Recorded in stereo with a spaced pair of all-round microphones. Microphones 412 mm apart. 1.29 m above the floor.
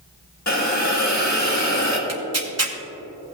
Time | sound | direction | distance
0.5 | a hiss | 45° left (ahead or behind) | 1.6 m
2.1 | tearing paper | 35° right (ahead or behind) | 1.0 m